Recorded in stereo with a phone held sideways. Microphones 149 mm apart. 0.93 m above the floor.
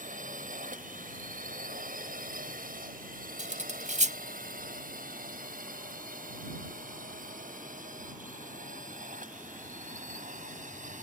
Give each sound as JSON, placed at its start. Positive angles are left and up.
{"t": 0.0, "sound": "a drone", "side_deg": -65}
{"t": 3.4, "sound": "cutlery clinking", "side_deg": -60}